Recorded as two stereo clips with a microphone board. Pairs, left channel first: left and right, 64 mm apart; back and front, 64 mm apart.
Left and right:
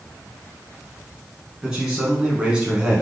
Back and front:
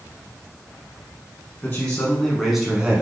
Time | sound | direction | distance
1.6 | a man speaking | 160° right | 1.1 m